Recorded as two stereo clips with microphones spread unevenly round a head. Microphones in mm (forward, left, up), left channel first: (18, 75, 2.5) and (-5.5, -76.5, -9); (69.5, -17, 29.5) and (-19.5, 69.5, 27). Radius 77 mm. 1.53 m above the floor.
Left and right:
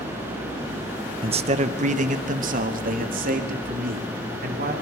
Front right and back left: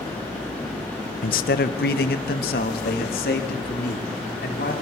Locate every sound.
1.2 s a man speaking: 40° right, 0.9 m; by 4.7 s 65° right, 4 m